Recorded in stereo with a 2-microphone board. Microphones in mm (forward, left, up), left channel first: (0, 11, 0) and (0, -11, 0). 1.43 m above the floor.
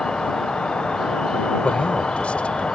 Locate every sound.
0.0 s an insect: 45° left (ahead or behind)
1.6 s a man speaking: 70° left (ahead or behind)